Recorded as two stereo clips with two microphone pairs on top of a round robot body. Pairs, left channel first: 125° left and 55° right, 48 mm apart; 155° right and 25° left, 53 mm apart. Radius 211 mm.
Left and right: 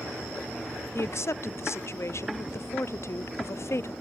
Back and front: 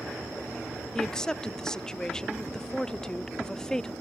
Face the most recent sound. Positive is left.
turn(degrees=130)